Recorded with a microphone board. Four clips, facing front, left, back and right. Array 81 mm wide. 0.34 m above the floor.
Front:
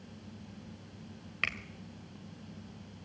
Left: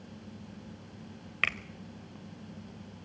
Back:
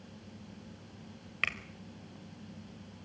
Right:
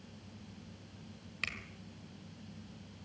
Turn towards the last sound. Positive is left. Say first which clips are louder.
# left 10 dB, back 1 dB
turn(degrees=95)